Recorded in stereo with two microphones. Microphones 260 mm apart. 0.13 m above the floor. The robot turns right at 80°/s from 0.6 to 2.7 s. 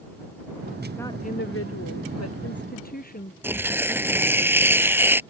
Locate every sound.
1.0 s a woman speaking: 5° left; by 3.3 s 145° left
3.4 s tearing paper: 10° right (ahead or behind)